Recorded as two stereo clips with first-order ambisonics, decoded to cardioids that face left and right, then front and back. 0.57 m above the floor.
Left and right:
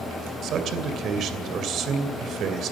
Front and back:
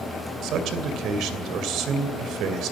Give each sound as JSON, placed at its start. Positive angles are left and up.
{"t": 0.4, "sound": "a man speaking", "azimuth_deg": -140, "distance_m": 2.5}